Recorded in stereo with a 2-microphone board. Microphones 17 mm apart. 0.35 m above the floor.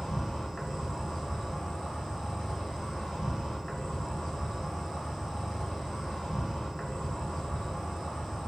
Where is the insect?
50° left (ahead or behind), 0.9 m.